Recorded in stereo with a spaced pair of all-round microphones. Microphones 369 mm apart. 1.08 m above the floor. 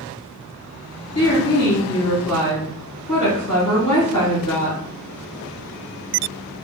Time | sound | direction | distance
1.1 | a woman speaking | 50° left (ahead or behind) | 1.9 m